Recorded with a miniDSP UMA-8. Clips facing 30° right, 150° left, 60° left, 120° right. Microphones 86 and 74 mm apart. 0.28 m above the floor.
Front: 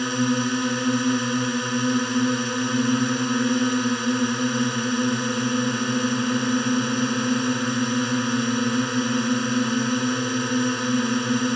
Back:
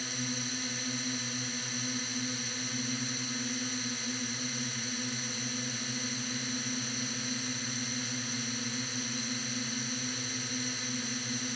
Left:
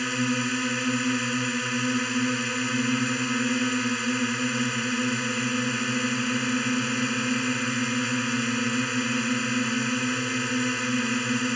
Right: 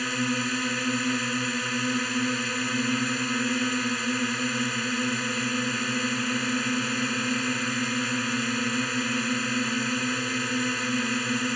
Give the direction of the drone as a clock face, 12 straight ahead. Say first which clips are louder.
Front 16 dB, left 1 dB; 1 o'clock.